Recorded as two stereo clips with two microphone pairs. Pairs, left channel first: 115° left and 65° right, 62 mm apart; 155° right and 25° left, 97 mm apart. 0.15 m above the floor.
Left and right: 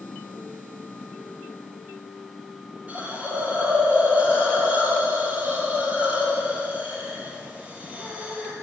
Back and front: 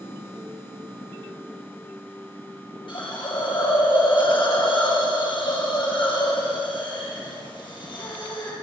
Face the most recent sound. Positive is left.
turn(degrees=-130)